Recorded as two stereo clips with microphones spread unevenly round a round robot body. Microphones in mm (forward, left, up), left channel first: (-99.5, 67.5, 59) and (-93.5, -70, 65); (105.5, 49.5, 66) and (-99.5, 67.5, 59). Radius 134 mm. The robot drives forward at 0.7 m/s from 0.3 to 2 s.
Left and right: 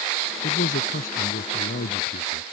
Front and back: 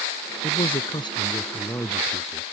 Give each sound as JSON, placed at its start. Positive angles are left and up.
{"t": 0.4, "sound": "a man speaking", "azimuth_deg": 60}